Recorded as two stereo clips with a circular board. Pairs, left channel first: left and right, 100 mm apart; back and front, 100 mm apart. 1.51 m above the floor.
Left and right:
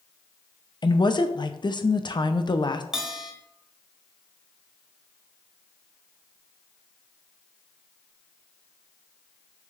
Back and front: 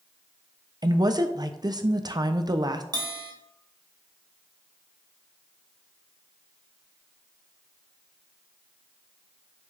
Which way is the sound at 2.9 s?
10° right.